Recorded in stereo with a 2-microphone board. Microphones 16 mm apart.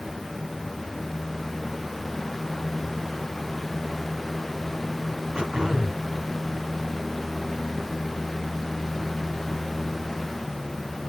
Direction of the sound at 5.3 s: 60° right (ahead or behind).